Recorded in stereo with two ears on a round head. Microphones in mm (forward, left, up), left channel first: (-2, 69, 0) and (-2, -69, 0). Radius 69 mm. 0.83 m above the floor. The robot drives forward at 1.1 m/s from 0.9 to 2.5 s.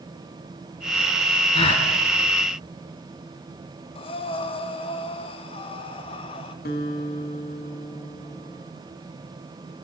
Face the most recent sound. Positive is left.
turn(degrees=65)  # may be behind; listen again after turning